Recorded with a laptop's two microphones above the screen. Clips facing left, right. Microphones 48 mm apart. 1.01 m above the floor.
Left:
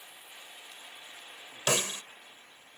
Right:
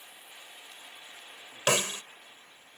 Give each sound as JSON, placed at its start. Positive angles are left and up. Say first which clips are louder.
{"t": 1.7, "sound": "a snare drum", "louder": "right 3 dB", "side_deg": -35}